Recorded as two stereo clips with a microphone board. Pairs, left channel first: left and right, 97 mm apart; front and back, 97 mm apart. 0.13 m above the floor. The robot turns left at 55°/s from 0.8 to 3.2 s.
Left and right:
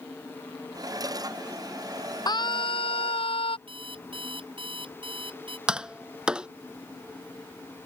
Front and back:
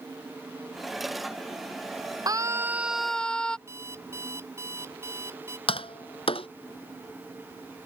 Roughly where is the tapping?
Ahead.